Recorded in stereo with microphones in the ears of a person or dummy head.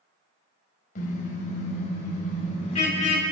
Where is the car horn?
45° left (ahead or behind), 4 m; by 3.2 s 30° left (ahead or behind), 5.5 m.